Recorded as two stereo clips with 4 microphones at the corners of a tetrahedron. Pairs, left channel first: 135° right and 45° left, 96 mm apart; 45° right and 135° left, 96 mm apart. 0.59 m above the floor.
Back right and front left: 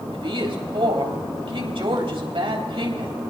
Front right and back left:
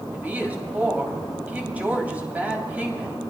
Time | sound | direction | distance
0.1 | a woman speaking | 60° left | 3 m